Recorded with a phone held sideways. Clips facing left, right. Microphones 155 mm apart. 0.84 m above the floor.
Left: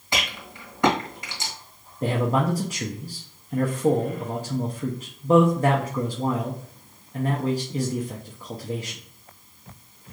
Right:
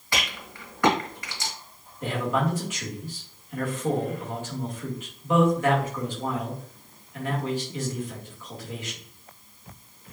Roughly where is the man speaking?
Left.